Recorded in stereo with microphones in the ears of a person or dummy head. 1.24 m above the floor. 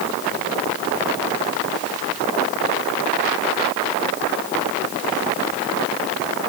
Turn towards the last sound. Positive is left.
No sound to turn to.